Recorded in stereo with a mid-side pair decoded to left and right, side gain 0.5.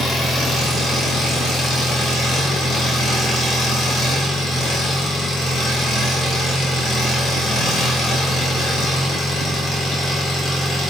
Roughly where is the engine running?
Ahead left.